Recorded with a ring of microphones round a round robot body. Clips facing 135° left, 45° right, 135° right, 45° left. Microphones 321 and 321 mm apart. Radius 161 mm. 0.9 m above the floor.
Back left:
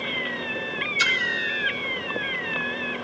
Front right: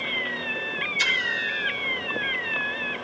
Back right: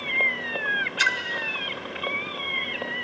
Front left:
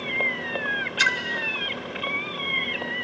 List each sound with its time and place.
1.0 s a splash: 55° left, 1.1 m